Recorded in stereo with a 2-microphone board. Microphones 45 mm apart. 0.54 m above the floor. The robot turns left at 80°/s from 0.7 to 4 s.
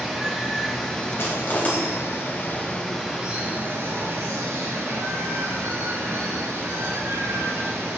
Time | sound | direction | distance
0.0 | running water | 175° right | 3 m
1.2 | crushing | 65° left (ahead or behind) | 4 m